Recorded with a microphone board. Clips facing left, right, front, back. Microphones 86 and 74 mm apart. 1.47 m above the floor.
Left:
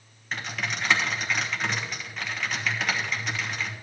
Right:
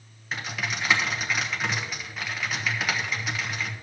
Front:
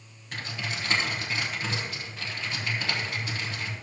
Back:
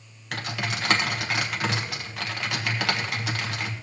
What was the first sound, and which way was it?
Typing on a keyboard, 175° right.